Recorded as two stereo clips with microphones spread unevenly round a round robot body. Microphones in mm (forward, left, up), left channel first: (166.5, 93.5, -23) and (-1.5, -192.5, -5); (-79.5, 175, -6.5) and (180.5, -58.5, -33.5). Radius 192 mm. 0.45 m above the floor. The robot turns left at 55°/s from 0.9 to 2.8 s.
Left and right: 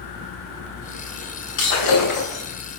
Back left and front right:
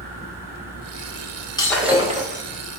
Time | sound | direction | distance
1.6 | breaking glass | 60° left | 6 m